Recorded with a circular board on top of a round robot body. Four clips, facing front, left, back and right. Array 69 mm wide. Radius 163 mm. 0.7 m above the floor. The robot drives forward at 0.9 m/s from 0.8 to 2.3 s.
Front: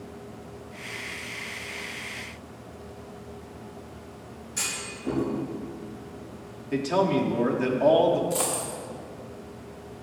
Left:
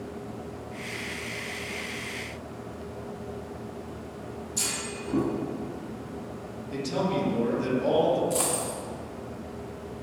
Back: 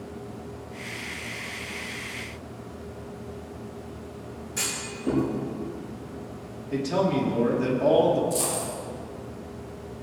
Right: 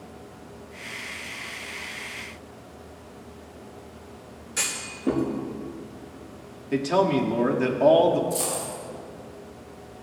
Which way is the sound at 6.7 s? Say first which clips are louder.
Right 7 dB, front 1 dB; 65° right.